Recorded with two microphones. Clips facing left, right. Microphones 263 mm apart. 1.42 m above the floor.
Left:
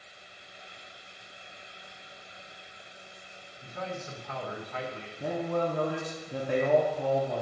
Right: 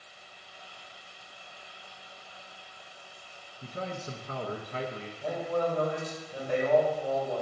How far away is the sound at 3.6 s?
About 0.7 m.